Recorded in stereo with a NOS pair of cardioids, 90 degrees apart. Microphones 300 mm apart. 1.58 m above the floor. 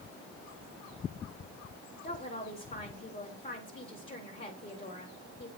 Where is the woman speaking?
30° left, 4.5 m.